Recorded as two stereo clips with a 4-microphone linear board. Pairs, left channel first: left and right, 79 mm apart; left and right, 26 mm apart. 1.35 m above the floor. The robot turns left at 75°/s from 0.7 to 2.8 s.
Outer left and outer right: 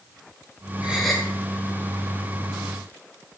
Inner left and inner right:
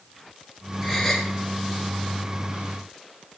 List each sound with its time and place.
0.8 s a gasp: 160° right, 4.5 m; by 1.3 s 165° left, 4.5 m